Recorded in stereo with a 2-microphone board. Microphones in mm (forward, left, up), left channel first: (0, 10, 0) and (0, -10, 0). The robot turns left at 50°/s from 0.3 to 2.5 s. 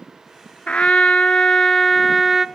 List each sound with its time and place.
0.7 s a trumpet: 90° left, 0.5 m; by 2.5 s straight ahead, 0.5 m